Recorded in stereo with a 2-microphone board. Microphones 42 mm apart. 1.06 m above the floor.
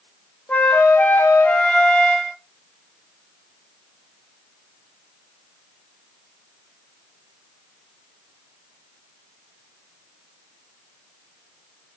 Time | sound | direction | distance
0.5 | a flute | 35° left (ahead or behind) | 0.6 m